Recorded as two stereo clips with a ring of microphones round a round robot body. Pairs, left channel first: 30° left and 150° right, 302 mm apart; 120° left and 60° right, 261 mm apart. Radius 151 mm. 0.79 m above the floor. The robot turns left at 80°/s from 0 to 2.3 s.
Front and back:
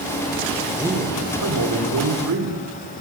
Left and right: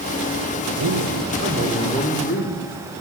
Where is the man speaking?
65° right, 3 m; by 2.6 s 175° left, 3 m.